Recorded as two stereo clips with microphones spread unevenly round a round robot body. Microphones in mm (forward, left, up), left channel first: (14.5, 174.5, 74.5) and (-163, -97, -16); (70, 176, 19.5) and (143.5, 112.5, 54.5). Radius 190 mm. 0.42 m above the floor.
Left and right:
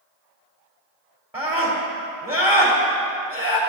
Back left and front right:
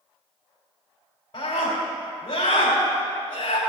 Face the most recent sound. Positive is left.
turn(degrees=160)